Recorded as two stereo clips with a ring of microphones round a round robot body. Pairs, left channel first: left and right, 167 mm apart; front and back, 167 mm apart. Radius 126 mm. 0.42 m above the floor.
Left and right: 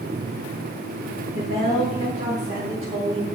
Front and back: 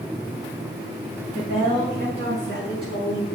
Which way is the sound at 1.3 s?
160° right.